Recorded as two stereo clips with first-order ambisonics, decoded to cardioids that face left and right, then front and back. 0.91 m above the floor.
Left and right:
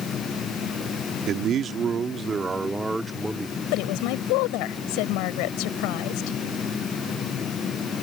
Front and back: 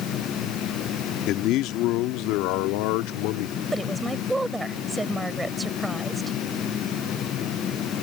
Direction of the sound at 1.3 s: 40° right.